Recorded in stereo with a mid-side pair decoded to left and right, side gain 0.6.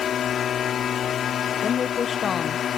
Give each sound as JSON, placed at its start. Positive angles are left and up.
{"t": 0.0, "sound": "a drone", "azimuth_deg": 45}
{"t": 1.6, "sound": "a woman speaking", "azimuth_deg": 35}